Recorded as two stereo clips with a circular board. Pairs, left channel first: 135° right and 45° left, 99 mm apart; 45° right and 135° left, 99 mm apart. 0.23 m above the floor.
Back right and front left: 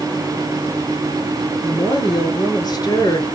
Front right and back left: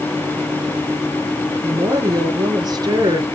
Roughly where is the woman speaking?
Behind.